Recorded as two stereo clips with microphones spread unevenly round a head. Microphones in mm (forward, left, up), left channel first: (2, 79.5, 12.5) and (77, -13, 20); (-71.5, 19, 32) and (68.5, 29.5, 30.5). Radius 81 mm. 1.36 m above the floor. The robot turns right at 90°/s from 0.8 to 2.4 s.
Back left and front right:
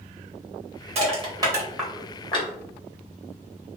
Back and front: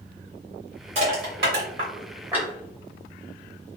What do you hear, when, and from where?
0.9 s crushing: 45° right, 1.3 m; by 2.5 s 85° left, 1.3 m